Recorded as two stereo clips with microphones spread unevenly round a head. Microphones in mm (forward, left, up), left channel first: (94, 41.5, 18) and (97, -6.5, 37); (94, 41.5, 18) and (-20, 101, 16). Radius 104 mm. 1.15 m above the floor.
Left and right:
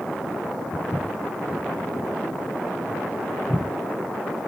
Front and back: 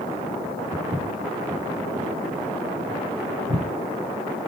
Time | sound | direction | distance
0.7 | footsteps | 140° left | 4 m